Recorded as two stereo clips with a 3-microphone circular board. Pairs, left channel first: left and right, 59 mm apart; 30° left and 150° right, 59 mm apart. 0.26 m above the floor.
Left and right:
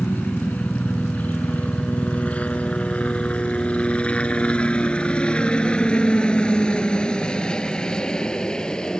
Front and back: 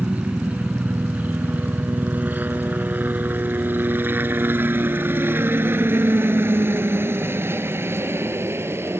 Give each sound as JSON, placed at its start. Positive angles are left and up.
{"t": 0.0, "sound": "a helicopter", "azimuth_deg": 150}